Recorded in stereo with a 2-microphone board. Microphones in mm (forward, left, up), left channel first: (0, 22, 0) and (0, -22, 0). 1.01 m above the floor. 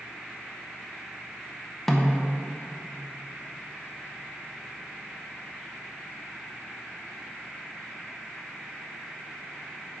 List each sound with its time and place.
1.9 s a snare drum: 5° left (ahead or behind), 0.7 m